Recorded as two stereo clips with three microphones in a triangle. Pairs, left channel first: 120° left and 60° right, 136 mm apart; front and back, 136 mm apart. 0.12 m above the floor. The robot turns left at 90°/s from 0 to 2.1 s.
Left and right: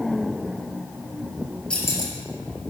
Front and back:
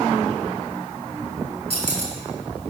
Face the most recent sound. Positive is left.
turn(degrees=165)